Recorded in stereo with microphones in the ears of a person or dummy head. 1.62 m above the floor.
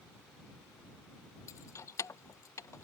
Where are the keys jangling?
15° left (ahead or behind).